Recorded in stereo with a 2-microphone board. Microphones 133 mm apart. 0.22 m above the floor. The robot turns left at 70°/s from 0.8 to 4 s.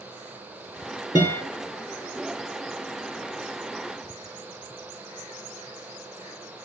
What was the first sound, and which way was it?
A guitar, 30° left (ahead or behind).